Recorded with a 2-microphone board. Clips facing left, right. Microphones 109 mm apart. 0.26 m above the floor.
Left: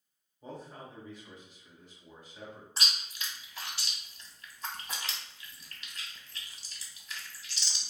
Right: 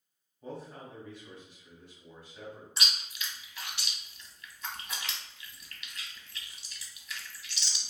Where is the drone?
I don't hear a drone.